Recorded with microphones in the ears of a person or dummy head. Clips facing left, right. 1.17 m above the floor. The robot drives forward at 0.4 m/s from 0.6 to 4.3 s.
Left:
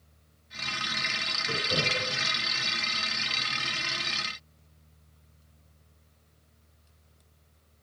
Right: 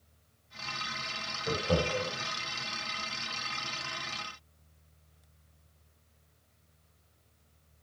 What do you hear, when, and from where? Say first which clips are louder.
1.5 s laughter: right 3 dB; 70° right (ahead or behind), 5.5 m